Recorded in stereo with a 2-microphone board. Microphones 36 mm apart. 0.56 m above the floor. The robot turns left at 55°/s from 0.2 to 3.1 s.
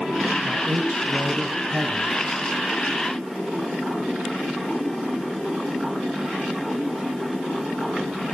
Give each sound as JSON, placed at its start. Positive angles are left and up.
{"t": 0.5, "sound": "a man speaking", "azimuth_deg": -40, "distance_m": 4.5}